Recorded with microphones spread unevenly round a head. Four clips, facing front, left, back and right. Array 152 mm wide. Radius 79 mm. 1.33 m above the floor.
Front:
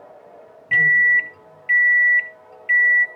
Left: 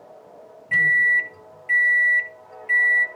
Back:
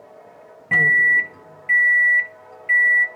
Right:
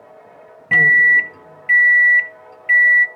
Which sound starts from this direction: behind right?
A microwave, at 0.7 s.